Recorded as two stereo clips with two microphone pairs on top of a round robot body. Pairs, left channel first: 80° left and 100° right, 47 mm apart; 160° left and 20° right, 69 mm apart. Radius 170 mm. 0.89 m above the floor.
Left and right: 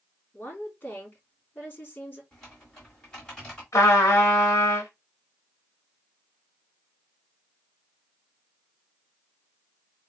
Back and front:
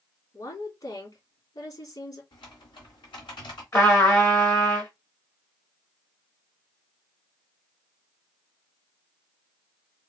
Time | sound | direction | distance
0.3 | a woman speaking | 135° left | 3 m
2.3 | typing on a keyboard | 160° left | 1.3 m
3.7 | a trumpet | 115° left | 0.9 m